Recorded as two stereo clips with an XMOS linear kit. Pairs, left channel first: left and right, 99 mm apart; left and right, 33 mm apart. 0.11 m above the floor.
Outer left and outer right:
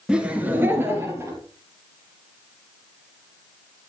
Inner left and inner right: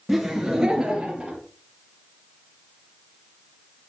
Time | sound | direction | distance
0.1 | laughter | 10° right (ahead or behind) | 1.5 m